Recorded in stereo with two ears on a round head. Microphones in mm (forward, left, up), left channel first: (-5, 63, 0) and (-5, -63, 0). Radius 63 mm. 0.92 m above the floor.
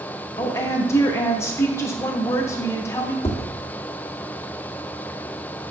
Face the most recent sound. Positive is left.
turn(degrees=20)  # may be behind; listen again after turning